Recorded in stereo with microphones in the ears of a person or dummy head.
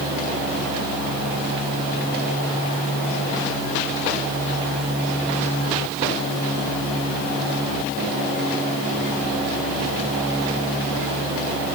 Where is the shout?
I don't hear a shout.